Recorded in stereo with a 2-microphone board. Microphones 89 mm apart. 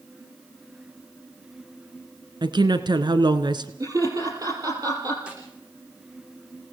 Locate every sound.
2.4 s a woman speaking: 55° right (ahead or behind), 1.8 m
3.8 s laughter: 40° right (ahead or behind), 4.5 m
5.3 s a snare drum: 10° right (ahead or behind), 9.5 m